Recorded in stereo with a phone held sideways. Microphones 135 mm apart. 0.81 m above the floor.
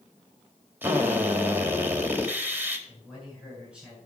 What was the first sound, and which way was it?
A drill, 15° right (ahead or behind).